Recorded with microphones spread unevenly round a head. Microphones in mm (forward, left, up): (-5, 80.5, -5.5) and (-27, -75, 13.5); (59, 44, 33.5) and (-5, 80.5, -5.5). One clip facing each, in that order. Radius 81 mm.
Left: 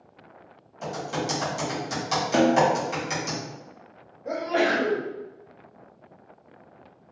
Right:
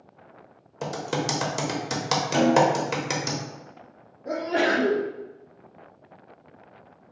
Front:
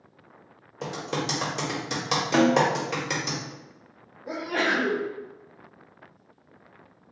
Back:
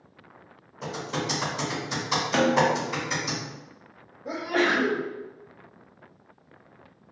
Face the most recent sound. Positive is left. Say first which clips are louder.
# even, back 2 dB
turn(degrees=155)